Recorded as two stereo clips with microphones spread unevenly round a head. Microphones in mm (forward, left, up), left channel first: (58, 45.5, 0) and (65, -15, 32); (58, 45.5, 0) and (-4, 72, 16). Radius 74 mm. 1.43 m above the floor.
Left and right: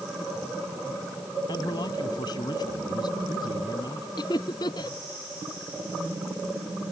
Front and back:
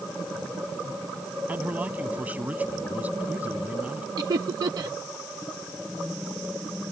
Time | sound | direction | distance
1.5 | a man speaking | 90° left | ?
4.2 | laughter | 135° left | ?